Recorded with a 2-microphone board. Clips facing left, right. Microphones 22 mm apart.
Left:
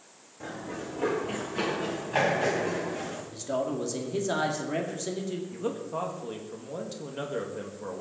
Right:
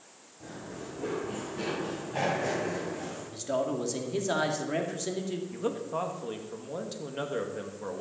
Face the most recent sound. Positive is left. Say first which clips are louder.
# right 2 dB
turn(degrees=-10)  # may be behind; listen again after turning